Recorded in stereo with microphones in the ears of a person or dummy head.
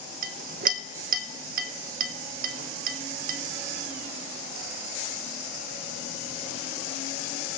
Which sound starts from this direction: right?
A clink, at 0.2 s.